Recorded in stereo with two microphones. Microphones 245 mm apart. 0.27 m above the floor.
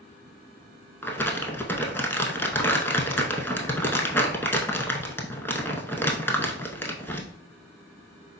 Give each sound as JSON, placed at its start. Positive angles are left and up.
{"t": 1.0, "sound": "crumpling", "side_deg": 10, "distance_m": 0.6}